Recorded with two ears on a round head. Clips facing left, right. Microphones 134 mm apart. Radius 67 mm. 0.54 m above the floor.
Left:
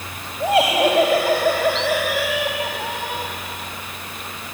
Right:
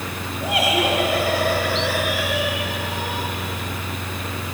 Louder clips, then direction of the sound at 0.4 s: Left 5 dB; 25° left (ahead or behind).